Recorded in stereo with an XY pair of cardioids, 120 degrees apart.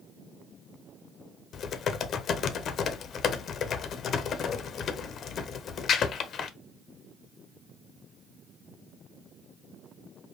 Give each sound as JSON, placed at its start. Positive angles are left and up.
{"t": 1.5, "sound": "typing on a keyboard", "azimuth_deg": 55, "distance_m": 0.5}